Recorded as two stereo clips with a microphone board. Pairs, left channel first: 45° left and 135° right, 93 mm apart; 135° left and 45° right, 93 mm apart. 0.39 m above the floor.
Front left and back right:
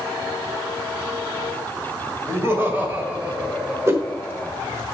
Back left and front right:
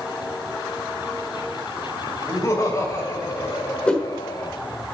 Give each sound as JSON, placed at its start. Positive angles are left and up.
{"t": 2.3, "sound": "laughter", "azimuth_deg": 175, "distance_m": 2.0}
{"t": 3.9, "sound": "a whoosh", "azimuth_deg": -160, "distance_m": 1.0}